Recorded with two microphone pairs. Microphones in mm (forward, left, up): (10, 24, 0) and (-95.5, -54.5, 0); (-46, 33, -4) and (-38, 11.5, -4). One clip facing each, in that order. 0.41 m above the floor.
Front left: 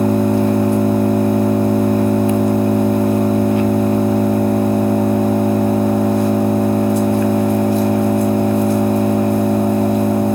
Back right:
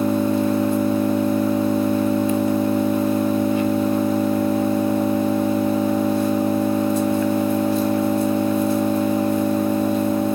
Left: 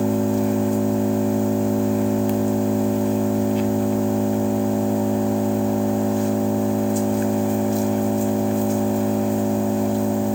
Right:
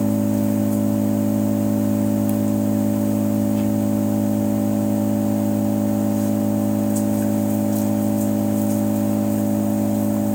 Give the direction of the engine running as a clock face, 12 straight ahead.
10 o'clock.